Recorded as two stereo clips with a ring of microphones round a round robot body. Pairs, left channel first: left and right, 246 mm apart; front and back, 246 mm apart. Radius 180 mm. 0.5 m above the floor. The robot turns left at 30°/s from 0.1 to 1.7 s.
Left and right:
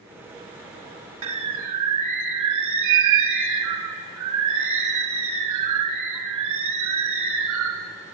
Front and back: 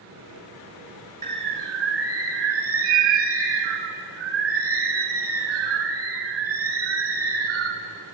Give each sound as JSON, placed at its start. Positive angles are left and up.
{"t": 1.2, "sound": "a bird", "azimuth_deg": -110, "distance_m": 1.0}